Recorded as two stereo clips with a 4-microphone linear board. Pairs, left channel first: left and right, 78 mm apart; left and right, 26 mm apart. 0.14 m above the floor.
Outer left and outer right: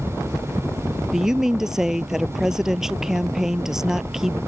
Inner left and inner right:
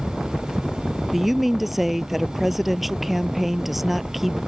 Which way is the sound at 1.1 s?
5° right (ahead or behind).